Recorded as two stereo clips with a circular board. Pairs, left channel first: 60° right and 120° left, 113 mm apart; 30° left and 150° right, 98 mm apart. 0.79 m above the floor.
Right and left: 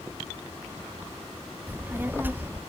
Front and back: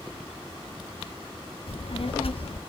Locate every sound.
1.7 s a child speaking: 45° left, 0.7 m